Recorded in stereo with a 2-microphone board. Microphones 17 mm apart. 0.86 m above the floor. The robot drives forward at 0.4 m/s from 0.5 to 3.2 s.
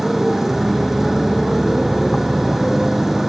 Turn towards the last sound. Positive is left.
turn(degrees=-20)  # may be behind; listen again after turning